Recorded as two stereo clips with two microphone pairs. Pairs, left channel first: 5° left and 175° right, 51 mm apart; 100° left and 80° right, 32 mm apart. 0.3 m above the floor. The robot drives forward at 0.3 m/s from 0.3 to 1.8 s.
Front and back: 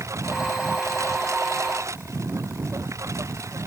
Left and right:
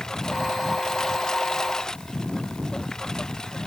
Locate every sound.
0.0 s a lawn mower: 175° left; by 3.7 s 170° left